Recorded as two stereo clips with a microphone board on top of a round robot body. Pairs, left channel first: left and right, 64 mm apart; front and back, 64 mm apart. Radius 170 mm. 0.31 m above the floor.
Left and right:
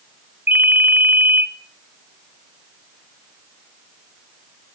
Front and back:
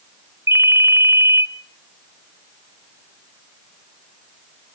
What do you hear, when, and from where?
0.5 s a ringtone: 145° right, 1.8 m